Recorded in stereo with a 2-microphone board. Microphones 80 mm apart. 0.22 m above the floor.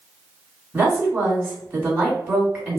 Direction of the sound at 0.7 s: 15° right (ahead or behind).